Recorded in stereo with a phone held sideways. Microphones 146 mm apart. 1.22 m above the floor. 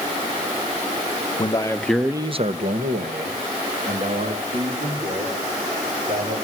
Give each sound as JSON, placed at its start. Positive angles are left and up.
{"t": 1.4, "sound": "a man speaking", "side_deg": 35, "distance_m": 1.3}